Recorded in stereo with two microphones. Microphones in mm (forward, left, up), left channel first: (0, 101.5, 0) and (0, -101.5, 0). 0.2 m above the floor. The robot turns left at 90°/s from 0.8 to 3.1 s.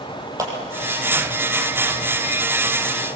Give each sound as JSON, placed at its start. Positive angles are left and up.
{"t": 0.4, "sound": "a clap", "side_deg": -15, "distance_m": 5.0}